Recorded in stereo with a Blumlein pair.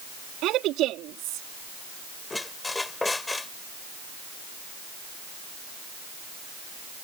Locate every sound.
0.4 s a woman speaking: 35° right
2.3 s a squeak: 10° left